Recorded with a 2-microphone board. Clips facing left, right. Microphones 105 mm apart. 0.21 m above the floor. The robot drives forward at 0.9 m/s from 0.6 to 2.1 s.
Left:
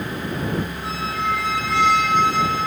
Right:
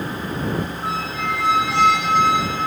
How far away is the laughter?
I don't hear laughter.